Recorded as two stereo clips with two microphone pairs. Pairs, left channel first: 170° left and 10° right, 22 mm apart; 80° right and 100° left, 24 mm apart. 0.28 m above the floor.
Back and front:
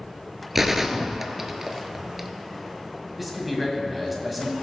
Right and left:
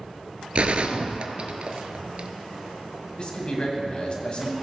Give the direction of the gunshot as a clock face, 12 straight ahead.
10 o'clock.